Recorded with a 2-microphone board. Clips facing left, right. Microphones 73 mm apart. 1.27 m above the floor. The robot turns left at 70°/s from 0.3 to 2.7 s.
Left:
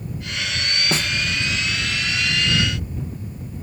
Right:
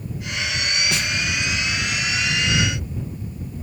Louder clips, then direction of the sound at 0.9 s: Left 2 dB; 35° left (ahead or behind).